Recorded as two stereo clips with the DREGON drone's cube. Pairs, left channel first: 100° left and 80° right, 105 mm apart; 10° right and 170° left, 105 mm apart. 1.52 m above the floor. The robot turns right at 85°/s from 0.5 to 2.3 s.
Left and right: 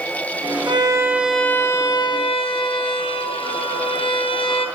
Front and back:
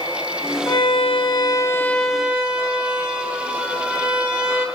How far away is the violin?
About 0.9 m.